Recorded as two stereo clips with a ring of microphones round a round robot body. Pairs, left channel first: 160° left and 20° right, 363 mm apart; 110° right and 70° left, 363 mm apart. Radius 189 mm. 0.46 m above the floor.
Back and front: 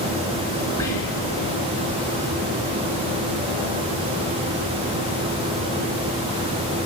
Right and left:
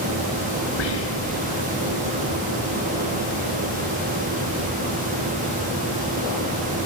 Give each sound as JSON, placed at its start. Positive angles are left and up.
{"t": 0.8, "sound": "whispering", "azimuth_deg": -125, "distance_m": 7.0}